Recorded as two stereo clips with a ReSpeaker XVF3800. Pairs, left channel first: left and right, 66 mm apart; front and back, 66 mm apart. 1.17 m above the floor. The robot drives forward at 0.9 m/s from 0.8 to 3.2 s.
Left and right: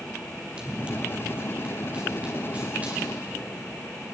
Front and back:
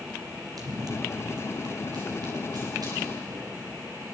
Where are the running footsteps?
165° right, 3 m; by 3.7 s 160° right, 7 m.